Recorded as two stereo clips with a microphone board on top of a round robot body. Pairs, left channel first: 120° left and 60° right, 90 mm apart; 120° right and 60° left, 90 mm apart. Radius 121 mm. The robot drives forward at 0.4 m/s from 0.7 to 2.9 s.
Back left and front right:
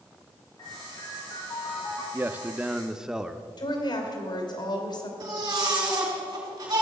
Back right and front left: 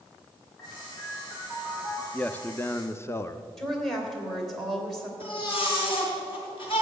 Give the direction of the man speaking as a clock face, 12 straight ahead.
2 o'clock.